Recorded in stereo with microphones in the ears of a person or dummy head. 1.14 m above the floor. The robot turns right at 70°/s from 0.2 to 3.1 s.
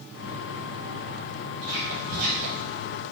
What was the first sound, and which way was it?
Whispering, 75° right (ahead or behind).